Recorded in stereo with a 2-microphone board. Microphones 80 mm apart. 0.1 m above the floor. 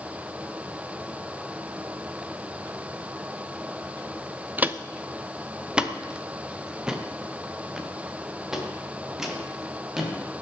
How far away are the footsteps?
About 0.6 m.